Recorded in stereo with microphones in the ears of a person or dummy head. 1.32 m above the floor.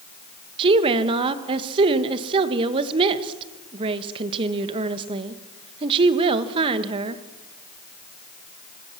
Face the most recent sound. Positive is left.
turn(degrees=-30)  # may be behind; listen again after turning